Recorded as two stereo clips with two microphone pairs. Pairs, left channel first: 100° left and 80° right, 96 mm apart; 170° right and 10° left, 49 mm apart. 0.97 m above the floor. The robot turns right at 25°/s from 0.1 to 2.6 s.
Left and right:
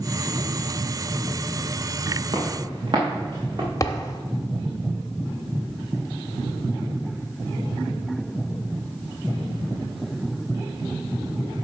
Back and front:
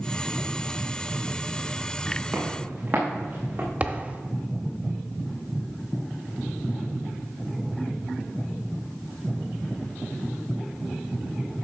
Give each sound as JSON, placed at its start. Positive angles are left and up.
{"t": 2.3, "sound": "footsteps", "azimuth_deg": -50, "distance_m": 3.0}
{"t": 3.8, "sound": "a thud", "azimuth_deg": 60, "distance_m": 0.9}